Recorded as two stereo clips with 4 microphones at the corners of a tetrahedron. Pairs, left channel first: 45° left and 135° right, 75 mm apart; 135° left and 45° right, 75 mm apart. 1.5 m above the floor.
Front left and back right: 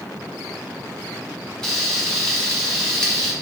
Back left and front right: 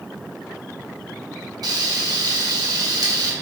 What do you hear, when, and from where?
1.6 s frying: 35° right, 0.8 m